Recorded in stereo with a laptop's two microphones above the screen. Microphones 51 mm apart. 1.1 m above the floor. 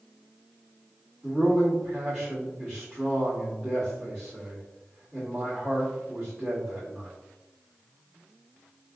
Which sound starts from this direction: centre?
A man speaking, at 1.2 s.